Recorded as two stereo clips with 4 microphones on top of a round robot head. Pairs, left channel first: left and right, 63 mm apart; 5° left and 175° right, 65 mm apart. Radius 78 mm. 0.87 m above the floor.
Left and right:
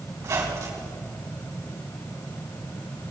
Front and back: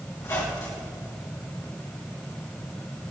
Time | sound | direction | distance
0.2 | a squeak | 50° right | 3.5 m